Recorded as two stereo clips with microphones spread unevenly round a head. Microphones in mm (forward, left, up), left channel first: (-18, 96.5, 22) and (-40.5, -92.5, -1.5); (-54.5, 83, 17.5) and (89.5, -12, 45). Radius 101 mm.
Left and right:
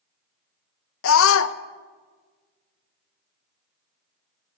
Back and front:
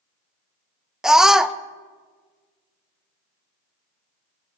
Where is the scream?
55° left, 0.6 m.